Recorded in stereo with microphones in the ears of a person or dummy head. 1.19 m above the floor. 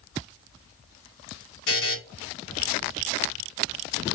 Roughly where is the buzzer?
Left.